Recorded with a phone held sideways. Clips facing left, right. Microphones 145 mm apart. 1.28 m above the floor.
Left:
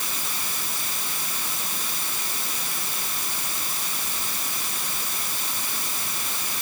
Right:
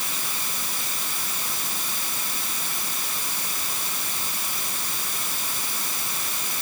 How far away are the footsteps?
I don't hear footsteps.